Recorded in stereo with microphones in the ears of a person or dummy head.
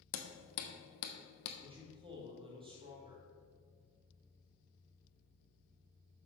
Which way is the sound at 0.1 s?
75° left (ahead or behind).